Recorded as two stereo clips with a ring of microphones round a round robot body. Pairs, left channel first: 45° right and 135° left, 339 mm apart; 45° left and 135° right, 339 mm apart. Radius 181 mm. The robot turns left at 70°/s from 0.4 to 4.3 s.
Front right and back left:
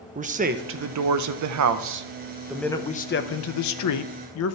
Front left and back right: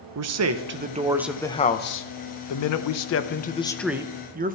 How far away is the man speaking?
About 0.8 m.